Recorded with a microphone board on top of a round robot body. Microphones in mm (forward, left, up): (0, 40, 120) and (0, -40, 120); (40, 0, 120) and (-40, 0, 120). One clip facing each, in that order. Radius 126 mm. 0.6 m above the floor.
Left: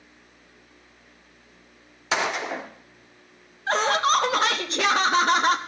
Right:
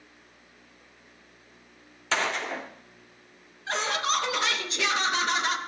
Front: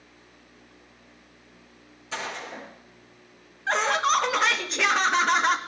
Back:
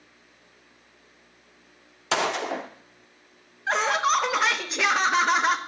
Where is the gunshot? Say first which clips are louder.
Left 3 dB, back 9 dB; 165° left, 0.7 m.